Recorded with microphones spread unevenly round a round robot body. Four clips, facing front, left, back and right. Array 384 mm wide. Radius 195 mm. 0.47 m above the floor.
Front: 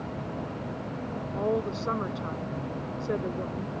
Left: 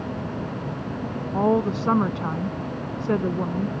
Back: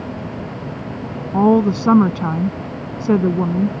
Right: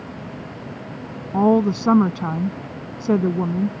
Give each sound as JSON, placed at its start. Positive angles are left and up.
{"t": 1.3, "sound": "a woman speaking", "azimuth_deg": -160}